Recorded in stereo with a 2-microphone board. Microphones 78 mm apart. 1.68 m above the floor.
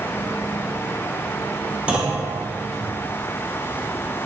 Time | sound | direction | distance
1.9 | a clunk | 15° right (ahead or behind) | 0.9 m